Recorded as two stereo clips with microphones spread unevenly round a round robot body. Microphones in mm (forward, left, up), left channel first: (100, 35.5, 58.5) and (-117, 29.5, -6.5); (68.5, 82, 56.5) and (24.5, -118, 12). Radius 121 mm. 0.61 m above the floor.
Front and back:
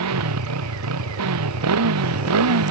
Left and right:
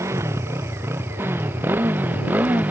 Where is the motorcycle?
Straight behind; by 2.7 s 175° left.